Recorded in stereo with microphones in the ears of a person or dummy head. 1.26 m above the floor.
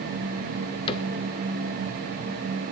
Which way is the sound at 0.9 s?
30° left (ahead or behind).